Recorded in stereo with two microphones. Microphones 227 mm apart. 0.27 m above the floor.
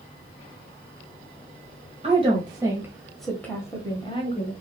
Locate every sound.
2.0 s a woman speaking: 30° right (ahead or behind), 1.3 m; by 4.5 s 30° left (ahead or behind), 1.4 m